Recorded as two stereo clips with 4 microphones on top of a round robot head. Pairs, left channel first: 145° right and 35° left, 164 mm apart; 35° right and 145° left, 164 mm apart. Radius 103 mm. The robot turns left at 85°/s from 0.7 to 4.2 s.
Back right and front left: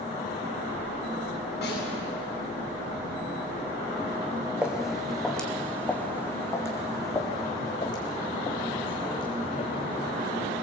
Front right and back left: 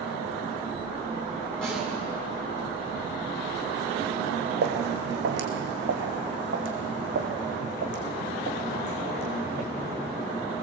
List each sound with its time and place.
1.6 s a snare drum: 120° right, 8.5 m; by 1.8 s 140° right, 8.5 m
4.6 s footsteps: 120° left, 2.5 m; by 10.3 s 165° left, 4 m